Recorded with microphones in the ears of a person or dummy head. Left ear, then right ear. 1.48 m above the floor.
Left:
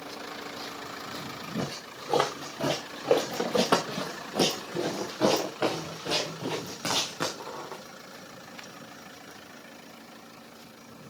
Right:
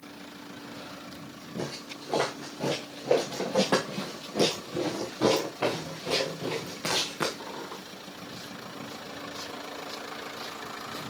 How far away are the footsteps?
About 5 m.